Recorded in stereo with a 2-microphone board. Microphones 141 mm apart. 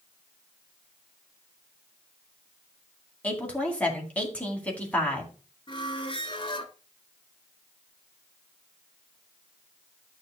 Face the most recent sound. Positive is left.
turn(degrees=35)  # may be behind; listen again after turning